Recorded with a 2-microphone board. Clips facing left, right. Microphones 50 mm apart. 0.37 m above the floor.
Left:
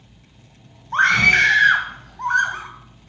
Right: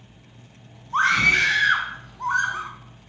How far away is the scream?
About 2.5 m.